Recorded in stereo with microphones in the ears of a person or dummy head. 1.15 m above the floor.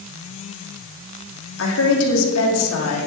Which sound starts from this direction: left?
A woman speaking, at 1.6 s.